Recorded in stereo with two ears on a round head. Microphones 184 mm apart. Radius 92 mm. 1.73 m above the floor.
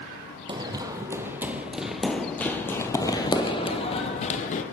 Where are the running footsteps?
20° right (ahead or behind), 2 m; by 4.6 s 40° left (ahead or behind), 2 m.